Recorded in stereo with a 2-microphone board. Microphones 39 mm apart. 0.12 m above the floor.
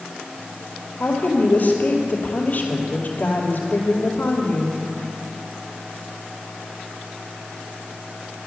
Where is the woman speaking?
40° left (ahead or behind), 2.5 m.